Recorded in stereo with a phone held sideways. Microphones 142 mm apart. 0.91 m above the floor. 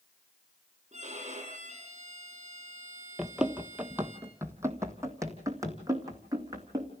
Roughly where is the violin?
Right.